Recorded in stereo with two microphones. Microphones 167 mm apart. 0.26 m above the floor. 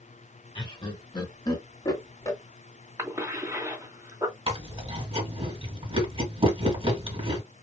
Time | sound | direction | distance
0.6 | laughter | 30° left (ahead or behind) | 1.4 m
3.0 | a cough | 20° right (ahead or behind) | 2 m
4.5 | chewing | 35° right (ahead or behind) | 2.5 m